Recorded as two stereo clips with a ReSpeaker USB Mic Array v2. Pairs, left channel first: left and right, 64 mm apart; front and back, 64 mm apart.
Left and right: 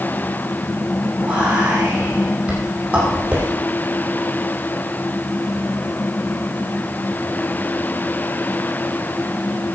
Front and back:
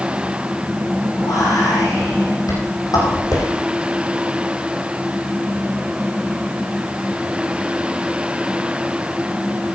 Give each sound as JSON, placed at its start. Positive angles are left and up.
{"t": 1.2, "sound": "whispering", "azimuth_deg": -20, "distance_m": 8.0}